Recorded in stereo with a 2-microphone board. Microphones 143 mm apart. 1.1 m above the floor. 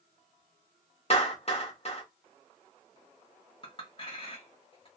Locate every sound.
1.1 s a clap: 45° left (ahead or behind), 1.1 m
3.6 s a clink: 40° left (ahead or behind), 1.1 m